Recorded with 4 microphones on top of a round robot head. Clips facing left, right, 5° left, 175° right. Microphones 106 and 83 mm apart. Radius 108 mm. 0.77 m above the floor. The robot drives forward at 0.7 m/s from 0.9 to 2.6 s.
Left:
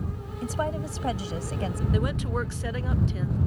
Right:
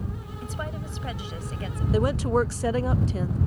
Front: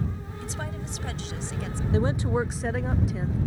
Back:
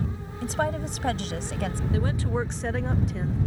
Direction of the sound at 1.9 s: 45° right.